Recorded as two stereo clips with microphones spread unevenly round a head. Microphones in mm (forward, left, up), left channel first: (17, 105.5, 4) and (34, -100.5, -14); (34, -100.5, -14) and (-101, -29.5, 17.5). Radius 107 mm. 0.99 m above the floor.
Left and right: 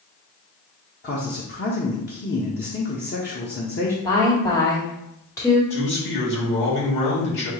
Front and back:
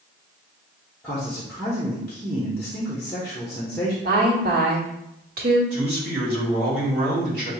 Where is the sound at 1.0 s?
50° left, 0.9 m.